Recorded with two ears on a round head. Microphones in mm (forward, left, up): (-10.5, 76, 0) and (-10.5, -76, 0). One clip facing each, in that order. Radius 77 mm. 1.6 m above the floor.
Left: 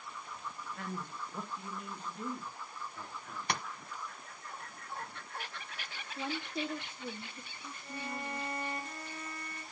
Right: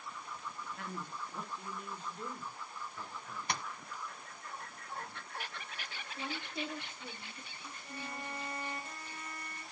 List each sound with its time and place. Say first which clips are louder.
0.8 s a man speaking: left 3 dB; 60° left (ahead or behind), 1.3 m
3.5 s tapping: left 2 dB; 50° left (ahead or behind), 0.7 m
6.2 s a woman speaking: left 4 dB; 85° left, 1.3 m
7.8 s a violin: left 4 dB; 80° left, 4.5 m